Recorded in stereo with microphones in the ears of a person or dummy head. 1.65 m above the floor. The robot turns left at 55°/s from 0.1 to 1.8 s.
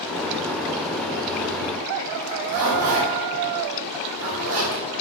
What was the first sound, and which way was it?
A zipper, 65° right (ahead or behind).